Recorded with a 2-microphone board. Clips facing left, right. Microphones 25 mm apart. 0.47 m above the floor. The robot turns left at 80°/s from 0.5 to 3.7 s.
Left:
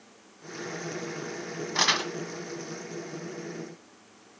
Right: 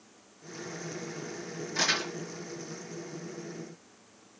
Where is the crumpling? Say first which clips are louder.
Left 4 dB; 35° left (ahead or behind), 2 m; by 2.1 s 65° left (ahead or behind), 2 m.